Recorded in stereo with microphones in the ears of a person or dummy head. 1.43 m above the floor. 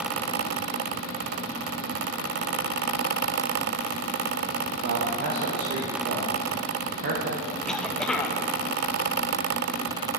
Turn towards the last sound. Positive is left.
turn(degrees=5)  # may be behind; listen again after turning